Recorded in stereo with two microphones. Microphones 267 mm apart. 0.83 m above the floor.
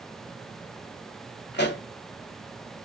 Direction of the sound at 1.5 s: 40° left (ahead or behind).